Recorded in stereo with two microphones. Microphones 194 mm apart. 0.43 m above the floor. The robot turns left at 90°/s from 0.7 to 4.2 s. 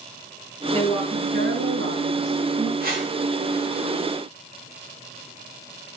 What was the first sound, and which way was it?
A woman speaking, 10° left.